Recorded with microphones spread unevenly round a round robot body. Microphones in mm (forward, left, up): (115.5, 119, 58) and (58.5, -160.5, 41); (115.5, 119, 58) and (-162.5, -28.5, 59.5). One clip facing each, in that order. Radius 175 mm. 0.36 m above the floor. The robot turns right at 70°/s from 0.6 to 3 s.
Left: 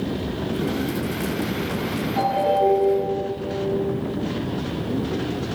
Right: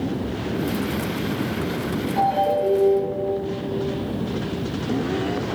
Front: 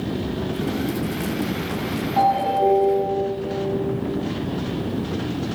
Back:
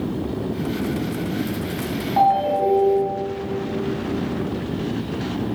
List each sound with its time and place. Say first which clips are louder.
2.2 s a ringtone: left 3 dB, back 1 dB; 165° left, 2.5 m; by 3.1 s 140° right, 2.5 m